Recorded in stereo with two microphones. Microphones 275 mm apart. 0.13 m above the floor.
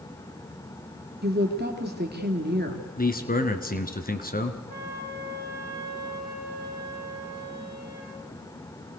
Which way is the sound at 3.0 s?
35° left (ahead or behind).